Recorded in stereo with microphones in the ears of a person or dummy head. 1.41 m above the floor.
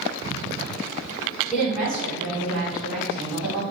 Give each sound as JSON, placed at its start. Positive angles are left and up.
{"t": 1.5, "sound": "a woman speaking", "side_deg": 0, "distance_m": 1.1}